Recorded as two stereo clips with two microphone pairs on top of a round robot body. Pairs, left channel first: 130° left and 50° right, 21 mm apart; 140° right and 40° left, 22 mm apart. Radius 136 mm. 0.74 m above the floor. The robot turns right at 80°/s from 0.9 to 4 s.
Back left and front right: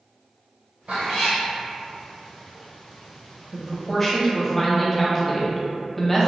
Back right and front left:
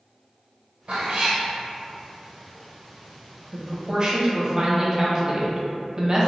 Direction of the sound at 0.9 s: 10° right.